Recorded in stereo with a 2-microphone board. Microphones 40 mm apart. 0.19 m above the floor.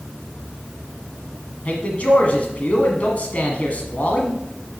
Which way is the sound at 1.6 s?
40° left (ahead or behind).